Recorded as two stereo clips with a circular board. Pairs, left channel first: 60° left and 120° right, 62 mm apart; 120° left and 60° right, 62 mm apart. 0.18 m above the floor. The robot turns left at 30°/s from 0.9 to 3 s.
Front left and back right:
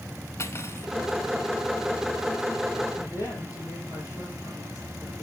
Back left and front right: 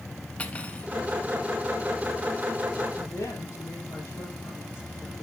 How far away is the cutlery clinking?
About 1.2 m.